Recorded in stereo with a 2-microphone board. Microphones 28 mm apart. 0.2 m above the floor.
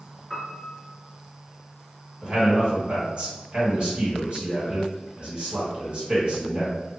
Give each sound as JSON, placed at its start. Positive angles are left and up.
{"t": 0.3, "sound": "a piano", "side_deg": 5, "distance_m": 1.1}
{"t": 2.2, "sound": "a man speaking", "side_deg": -30, "distance_m": 1.8}